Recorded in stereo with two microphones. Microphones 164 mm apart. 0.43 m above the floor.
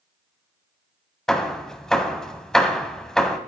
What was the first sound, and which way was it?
Hammering, 5° left (ahead or behind).